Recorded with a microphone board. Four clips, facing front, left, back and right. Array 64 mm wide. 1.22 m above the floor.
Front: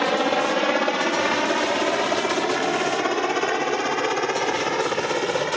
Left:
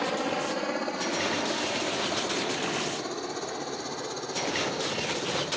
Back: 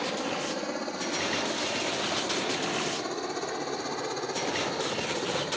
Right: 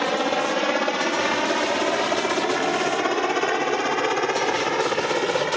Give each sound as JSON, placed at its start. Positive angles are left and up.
{"t": 0.0, "sound": "a helicopter", "azimuth_deg": -30}